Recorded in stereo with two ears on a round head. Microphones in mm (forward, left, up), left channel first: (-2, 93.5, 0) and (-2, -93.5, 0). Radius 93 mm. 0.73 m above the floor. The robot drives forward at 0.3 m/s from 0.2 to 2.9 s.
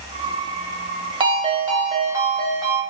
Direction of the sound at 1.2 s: 25° right (ahead or behind).